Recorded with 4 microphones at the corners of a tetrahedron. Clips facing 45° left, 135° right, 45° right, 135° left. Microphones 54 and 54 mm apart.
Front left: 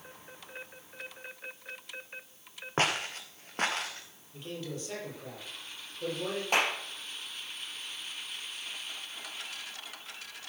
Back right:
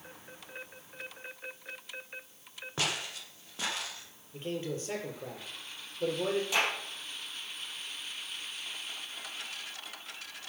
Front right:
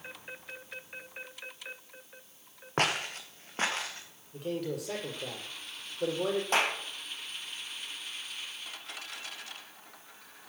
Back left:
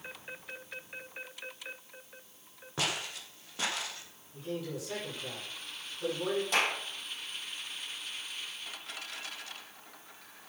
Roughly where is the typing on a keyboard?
I don't hear typing on a keyboard.